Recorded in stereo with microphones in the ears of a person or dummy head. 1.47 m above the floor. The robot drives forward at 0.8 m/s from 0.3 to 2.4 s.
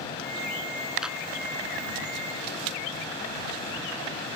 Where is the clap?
5° right (ahead or behind).